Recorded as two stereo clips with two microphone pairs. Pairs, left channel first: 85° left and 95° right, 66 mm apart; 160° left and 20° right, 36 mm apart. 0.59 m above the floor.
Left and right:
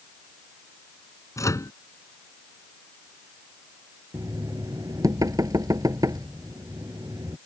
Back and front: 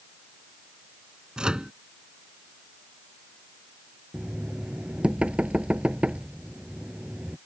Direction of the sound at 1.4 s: 50° left.